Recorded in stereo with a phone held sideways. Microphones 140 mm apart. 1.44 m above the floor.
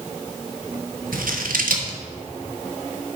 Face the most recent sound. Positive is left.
turn(degrees=-80)